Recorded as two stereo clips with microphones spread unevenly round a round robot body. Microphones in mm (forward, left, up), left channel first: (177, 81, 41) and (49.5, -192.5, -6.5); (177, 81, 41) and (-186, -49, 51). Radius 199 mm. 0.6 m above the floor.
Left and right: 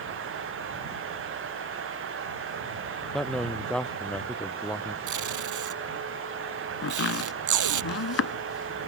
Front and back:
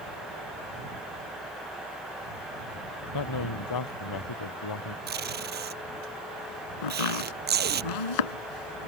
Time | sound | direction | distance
3.1 | a man speaking | 25° right | ?
5.1 | tape being pulled | 95° right | ?
6.8 | chopping | 25° left | ?